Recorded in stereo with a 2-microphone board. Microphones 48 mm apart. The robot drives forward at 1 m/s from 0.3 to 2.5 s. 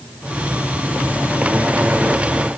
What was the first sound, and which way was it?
Only background noise.